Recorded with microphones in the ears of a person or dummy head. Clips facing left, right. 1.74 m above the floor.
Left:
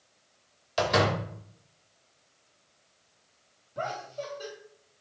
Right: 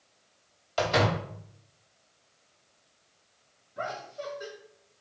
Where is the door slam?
25° left (ahead or behind), 1.8 m.